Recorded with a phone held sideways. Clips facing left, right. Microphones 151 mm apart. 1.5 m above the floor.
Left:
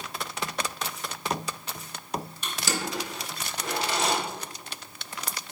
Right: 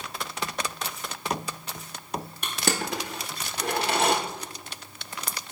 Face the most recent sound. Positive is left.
turn(degrees=-60)  # may be behind; listen again after turning